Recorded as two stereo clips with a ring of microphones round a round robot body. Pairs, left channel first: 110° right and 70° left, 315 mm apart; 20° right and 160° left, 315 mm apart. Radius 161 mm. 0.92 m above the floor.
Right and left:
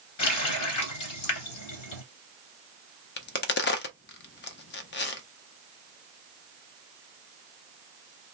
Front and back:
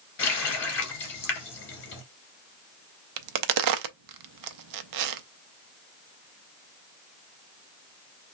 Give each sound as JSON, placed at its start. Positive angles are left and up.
{"t": 0.2, "sound": "a running tap", "azimuth_deg": -75, "distance_m": 2.0}
{"t": 3.2, "sound": "a crack", "azimuth_deg": -170, "distance_m": 0.5}